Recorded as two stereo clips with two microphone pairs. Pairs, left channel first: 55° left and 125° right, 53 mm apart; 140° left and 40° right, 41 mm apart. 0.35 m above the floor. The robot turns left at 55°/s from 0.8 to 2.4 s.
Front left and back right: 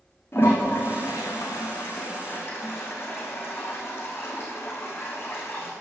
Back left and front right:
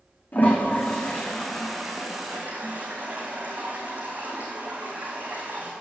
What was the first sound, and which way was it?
A toilet flushing, 100° left.